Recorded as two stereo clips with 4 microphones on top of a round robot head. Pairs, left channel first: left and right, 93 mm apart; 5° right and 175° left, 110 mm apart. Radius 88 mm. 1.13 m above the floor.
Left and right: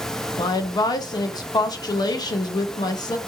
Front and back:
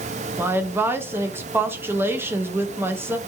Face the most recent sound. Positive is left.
turn(degrees=110)